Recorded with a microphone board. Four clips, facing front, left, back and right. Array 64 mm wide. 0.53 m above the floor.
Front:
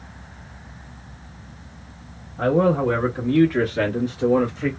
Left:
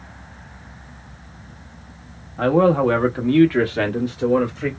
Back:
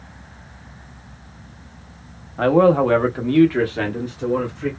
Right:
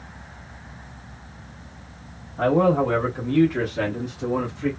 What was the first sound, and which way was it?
A man speaking, 170° left.